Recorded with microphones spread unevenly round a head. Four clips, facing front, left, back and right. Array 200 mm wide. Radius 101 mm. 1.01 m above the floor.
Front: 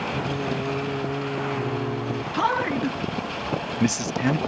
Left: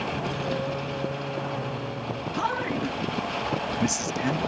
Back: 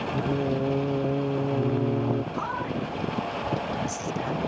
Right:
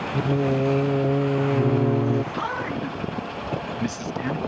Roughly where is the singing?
Right.